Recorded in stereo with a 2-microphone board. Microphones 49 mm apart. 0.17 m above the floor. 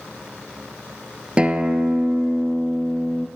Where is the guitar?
20° right (ahead or behind), 0.5 m.